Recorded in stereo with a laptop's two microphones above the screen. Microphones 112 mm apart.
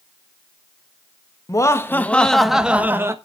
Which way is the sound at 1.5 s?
30° left (ahead or behind).